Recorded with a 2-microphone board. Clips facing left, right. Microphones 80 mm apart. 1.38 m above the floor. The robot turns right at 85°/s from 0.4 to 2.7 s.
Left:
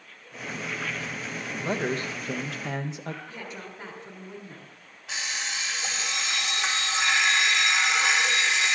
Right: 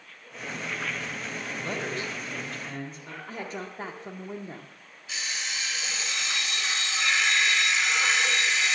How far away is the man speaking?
About 0.7 m.